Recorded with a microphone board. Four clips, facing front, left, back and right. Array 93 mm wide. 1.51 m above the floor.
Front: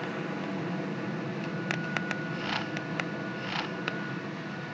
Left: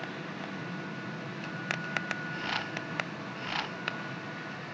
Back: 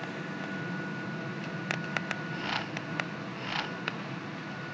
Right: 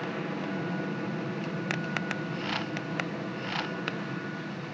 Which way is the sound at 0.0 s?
55° right.